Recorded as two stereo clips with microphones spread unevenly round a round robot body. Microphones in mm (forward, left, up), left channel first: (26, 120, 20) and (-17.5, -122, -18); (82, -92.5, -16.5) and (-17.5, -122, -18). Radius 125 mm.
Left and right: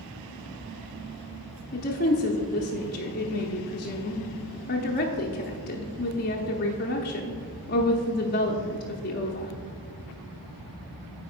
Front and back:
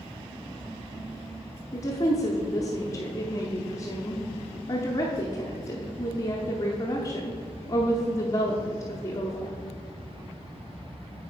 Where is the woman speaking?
50° left, 0.7 m.